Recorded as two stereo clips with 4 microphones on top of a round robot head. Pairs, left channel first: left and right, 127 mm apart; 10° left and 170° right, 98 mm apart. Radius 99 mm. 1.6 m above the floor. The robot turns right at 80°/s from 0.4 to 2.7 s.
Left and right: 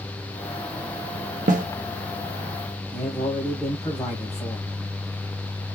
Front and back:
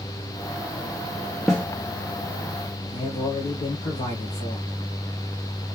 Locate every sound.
1.5 s a snare drum: 80° right, 0.9 m; by 1.7 s 65° right, 0.9 m
2.9 s a man speaking: 5° left, 2 m